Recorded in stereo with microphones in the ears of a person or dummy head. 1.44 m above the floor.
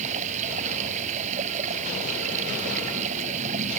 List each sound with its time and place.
0.0 s running water: 40° right (ahead or behind)